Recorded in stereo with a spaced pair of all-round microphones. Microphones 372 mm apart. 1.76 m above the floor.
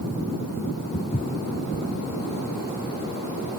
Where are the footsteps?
20° left (ahead or behind).